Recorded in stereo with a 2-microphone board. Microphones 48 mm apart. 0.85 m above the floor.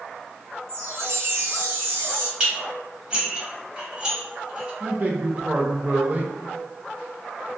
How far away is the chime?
About 0.6 m.